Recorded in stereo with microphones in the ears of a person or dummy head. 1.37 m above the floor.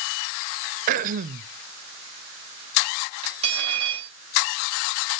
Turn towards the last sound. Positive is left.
turn(degrees=-30)  # may be behind; listen again after turning